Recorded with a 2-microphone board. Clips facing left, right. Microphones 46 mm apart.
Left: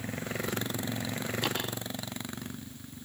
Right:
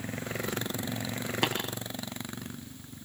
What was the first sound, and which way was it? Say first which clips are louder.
Tapping: right 5 dB; 75° right (ahead or behind).